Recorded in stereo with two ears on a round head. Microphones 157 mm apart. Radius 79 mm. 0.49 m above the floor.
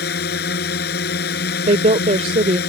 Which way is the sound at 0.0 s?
60° left (ahead or behind).